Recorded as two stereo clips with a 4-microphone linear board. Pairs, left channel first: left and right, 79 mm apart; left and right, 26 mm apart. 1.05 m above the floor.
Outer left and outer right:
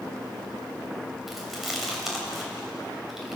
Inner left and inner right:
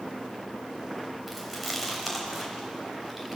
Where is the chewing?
5° right (ahead or behind), 4.5 m.